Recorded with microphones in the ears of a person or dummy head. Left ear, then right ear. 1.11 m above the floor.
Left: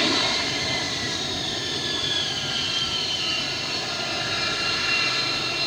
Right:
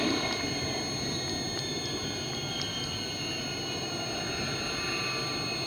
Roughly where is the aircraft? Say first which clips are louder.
Left 8 dB; left.